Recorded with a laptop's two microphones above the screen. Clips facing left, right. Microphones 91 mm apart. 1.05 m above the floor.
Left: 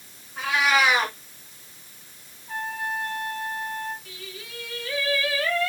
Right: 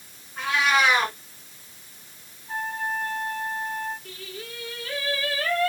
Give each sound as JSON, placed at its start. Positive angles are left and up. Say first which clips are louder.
{"t": 0.4, "sound": "a cat meowing", "louder": "even", "side_deg": 5, "distance_m": 2.5}
{"t": 2.5, "sound": "a trumpet", "louder": "right 1 dB", "side_deg": -35, "distance_m": 4.5}
{"t": 4.0, "sound": "singing", "louder": "right 3 dB", "side_deg": -50, "distance_m": 4.0}